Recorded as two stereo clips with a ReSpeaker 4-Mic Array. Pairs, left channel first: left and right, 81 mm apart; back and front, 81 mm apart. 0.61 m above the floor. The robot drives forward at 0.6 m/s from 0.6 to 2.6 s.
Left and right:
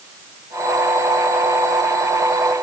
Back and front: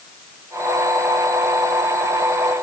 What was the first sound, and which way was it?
Only background noise.